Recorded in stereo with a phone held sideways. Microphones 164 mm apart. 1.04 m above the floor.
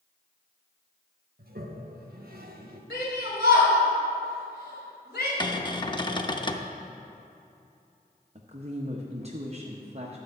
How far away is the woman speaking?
About 0.9 m.